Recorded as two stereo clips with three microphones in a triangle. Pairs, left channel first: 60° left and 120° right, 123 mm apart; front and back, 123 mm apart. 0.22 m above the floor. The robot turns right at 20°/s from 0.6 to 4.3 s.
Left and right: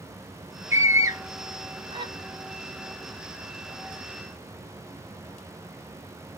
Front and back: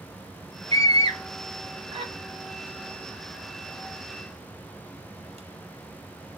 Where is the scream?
175° left, 1.4 m; by 2.1 s 155° right, 1.4 m.